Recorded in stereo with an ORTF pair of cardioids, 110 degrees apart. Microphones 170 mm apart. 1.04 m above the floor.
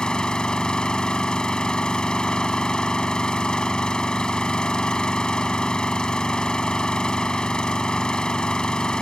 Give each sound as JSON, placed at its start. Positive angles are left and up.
{"t": 0.0, "sound": "an engine running", "azimuth_deg": 5}